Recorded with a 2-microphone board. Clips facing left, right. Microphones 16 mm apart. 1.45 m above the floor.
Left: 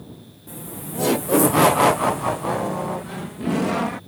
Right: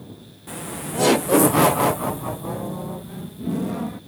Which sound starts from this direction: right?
Laughter, at 0.5 s.